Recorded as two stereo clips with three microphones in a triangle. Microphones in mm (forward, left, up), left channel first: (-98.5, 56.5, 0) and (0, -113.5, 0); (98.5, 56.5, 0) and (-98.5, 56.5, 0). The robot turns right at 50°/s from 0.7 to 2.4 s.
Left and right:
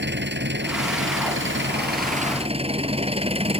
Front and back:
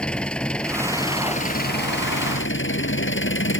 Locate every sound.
0.0 s an engine running: 85° right; by 3.6 s straight ahead